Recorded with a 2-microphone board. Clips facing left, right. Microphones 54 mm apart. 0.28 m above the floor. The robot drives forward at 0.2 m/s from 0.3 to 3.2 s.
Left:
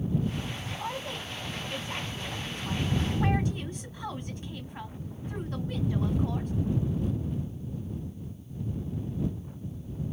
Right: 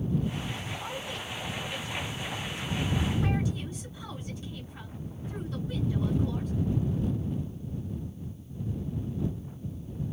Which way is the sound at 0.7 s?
40° left (ahead or behind).